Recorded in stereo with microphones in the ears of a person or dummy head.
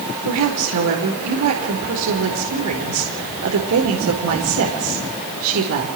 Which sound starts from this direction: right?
A woman speaking, at 0.2 s.